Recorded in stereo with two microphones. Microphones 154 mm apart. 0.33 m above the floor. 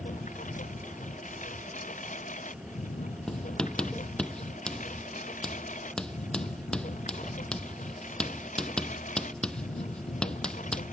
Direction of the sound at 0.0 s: 55° left (ahead or behind).